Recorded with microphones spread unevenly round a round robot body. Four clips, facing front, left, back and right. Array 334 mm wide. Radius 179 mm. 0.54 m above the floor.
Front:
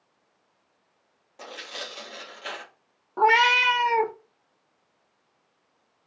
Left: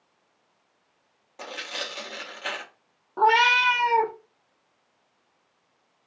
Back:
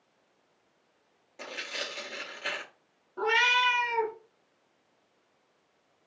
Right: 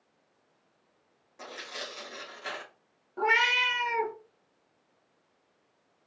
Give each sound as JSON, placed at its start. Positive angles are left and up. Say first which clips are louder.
{"t": 1.4, "sound": "tearing paper", "louder": "left 5 dB, even", "azimuth_deg": 130, "distance_m": 0.7}
{"t": 3.2, "sound": "a cat meowing", "louder": "left 8 dB, front 7 dB", "azimuth_deg": 40, "distance_m": 0.5}